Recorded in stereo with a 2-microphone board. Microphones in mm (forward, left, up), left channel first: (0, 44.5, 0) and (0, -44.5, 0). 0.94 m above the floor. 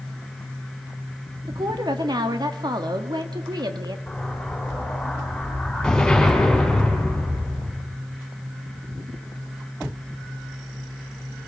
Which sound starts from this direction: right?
A woman speaking, at 1.5 s.